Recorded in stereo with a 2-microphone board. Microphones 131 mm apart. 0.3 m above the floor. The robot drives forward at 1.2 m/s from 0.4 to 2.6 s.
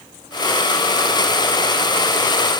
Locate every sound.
Only background noise.